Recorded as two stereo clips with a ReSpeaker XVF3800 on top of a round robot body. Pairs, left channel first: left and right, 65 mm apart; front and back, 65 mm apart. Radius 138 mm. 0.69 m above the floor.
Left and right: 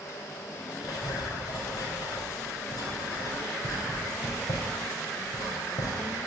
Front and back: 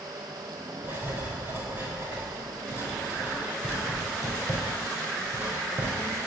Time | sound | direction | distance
0.8 | writing | 115° left | 4.5 m